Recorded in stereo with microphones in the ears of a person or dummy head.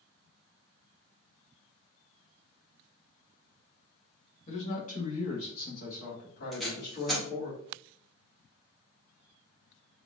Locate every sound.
4.5 s a man speaking: 35° left (ahead or behind), 1.3 m; by 7.5 s 55° left (ahead or behind), 2.5 m
6.5 s tape being pulled: centre (ahead or behind), 1.1 m